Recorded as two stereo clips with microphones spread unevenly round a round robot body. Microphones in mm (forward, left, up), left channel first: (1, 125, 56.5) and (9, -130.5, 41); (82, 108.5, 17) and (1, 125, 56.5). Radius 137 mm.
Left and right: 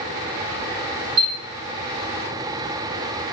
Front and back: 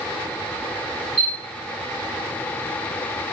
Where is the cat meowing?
I don't hear a cat meowing.